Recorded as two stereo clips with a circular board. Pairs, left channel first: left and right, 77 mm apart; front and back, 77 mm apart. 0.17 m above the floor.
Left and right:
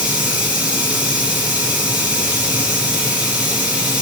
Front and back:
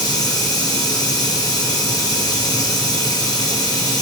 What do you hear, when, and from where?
0.0 s running water: 15° right, 2 m